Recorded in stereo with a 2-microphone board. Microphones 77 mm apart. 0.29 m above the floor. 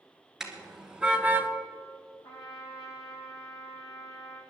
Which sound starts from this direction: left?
A trumpet, at 2.2 s.